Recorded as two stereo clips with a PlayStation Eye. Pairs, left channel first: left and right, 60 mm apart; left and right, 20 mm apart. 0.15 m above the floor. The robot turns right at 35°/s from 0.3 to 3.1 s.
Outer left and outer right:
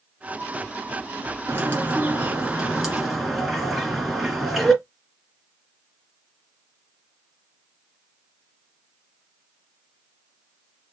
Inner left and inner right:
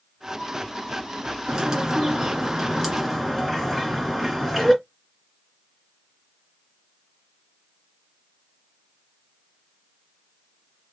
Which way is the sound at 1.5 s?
55° right.